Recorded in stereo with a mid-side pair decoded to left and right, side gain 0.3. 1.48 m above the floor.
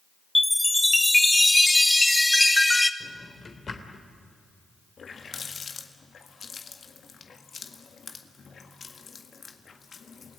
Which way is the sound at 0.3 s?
15° left.